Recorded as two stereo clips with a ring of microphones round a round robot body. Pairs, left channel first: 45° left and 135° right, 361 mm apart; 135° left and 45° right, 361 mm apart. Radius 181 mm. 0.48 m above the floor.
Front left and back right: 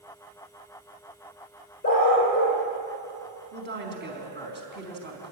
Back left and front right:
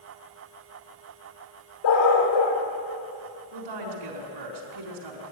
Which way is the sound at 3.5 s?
75° right.